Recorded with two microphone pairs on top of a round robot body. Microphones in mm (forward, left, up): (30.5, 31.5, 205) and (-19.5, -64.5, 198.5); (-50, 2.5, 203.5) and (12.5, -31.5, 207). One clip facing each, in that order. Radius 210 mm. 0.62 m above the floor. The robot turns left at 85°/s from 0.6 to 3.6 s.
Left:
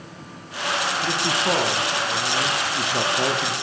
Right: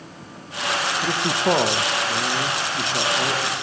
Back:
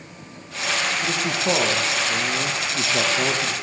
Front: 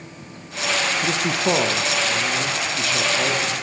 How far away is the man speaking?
About 0.9 m.